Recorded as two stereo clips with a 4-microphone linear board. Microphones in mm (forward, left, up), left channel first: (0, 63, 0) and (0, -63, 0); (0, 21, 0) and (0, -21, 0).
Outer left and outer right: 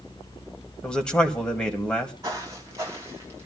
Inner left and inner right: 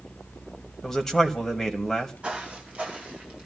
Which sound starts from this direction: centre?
A man speaking, at 0.8 s.